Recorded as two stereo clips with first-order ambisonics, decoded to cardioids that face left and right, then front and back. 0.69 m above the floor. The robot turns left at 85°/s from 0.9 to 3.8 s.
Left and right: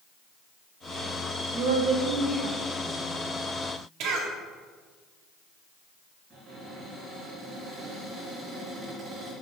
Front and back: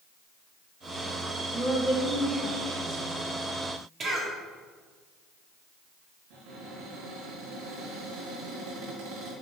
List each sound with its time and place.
1.5 s a woman speaking: 65° right, 2.5 m; by 3.2 s 155° left, 2.5 m
4.0 s a cough: 115° right, 1.6 m
6.3 s a cupboard door: 160° right, 3.5 m